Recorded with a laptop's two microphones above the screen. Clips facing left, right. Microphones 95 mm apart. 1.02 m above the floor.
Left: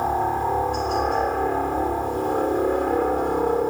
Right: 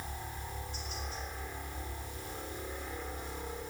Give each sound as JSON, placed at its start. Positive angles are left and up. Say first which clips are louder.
{"t": 0.0, "sound": "a helicopter", "louder": "left 22 dB", "side_deg": 65}